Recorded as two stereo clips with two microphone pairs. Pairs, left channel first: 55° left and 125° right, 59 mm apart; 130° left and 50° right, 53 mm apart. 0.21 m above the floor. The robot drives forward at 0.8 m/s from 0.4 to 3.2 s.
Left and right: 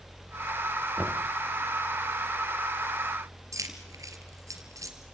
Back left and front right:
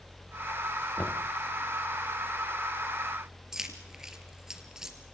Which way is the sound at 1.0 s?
175° left.